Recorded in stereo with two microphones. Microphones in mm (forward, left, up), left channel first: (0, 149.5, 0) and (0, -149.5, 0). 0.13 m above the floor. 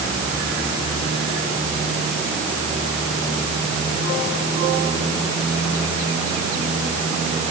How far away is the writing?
I don't hear writing.